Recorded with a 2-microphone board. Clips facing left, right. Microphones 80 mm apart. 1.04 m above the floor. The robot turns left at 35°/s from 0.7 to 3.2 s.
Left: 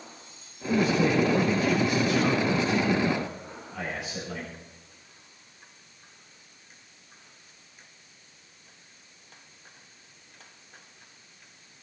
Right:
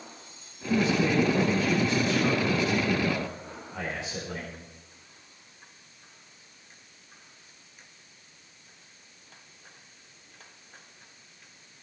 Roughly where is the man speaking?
Ahead left.